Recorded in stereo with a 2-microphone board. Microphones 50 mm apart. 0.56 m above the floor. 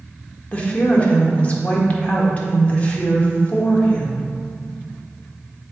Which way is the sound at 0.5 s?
25° left (ahead or behind).